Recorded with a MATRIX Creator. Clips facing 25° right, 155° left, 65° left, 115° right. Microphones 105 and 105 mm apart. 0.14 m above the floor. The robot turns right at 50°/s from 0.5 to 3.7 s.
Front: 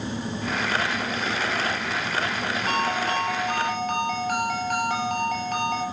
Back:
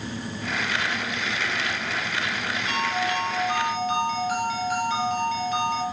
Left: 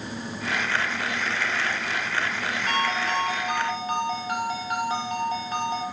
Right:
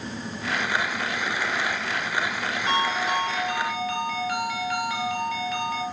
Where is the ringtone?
45° right, 1.5 m; by 5.8 s 5° left, 1.5 m.